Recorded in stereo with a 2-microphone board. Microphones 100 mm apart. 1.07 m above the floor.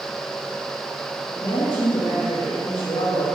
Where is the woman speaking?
70° left (ahead or behind), 1.9 m.